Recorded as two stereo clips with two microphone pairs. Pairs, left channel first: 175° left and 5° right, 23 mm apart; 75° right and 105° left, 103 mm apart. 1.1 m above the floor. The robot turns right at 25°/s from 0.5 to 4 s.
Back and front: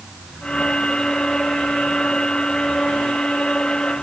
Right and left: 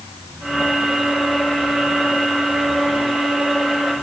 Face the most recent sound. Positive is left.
No sound to turn to.